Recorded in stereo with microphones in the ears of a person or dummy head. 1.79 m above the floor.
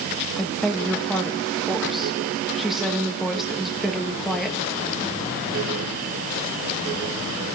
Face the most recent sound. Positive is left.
turn(degrees=-5)  # may be behind; listen again after turning